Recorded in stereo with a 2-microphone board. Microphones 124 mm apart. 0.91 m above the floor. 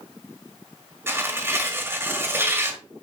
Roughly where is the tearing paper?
Centre.